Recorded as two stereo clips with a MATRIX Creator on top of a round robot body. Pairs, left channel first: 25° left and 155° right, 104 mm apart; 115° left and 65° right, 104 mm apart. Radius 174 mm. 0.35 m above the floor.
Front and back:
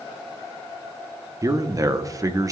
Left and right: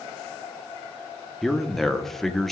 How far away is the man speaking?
About 1.0 m.